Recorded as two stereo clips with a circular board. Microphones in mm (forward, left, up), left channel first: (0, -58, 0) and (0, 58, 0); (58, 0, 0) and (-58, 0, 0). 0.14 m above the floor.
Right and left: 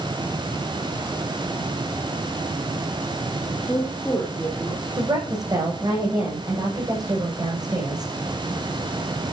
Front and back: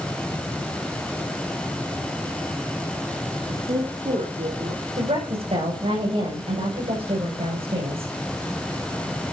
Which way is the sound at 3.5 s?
170° right.